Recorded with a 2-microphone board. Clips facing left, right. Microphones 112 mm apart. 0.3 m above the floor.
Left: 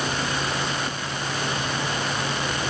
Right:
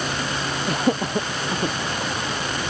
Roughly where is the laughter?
Right.